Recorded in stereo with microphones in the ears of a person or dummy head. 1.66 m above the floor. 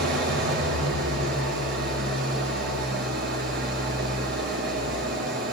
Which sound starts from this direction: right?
An engine running, at 0.0 s.